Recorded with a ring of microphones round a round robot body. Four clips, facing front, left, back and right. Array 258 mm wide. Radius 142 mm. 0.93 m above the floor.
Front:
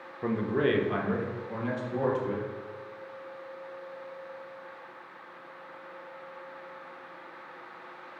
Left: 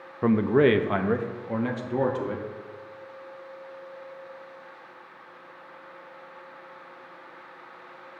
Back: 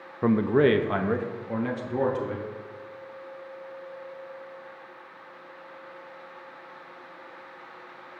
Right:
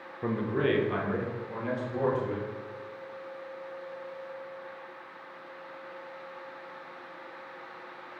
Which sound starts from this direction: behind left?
A man speaking, at 0.2 s.